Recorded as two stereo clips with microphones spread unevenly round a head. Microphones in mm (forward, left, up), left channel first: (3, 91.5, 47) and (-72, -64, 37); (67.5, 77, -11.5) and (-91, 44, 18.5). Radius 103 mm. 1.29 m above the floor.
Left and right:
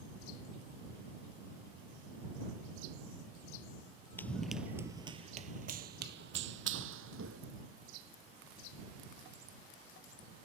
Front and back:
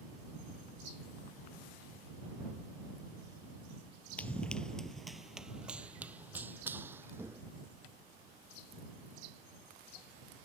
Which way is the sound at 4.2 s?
105° left.